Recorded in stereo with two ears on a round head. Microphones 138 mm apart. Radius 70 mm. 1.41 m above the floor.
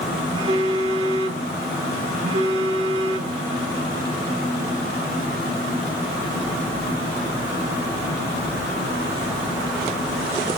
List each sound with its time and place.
0.3 s a phone buzzing: 45° right (ahead or behind), 1.6 m